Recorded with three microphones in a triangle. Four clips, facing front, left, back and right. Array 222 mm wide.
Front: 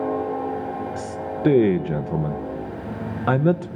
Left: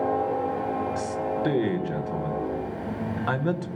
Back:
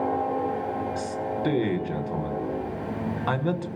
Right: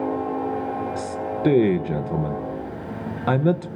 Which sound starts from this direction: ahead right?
A man speaking, at 1.0 s.